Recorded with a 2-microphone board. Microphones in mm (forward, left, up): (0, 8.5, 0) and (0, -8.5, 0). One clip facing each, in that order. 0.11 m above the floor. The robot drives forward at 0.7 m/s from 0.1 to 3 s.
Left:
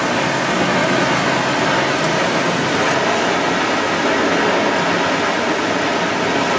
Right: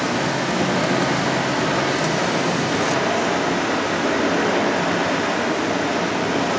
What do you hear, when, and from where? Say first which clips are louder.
0.0 s running water: left 4 dB; 55° left (ahead or behind), 5.5 m; by 6.6 s 40° left (ahead or behind), 7 m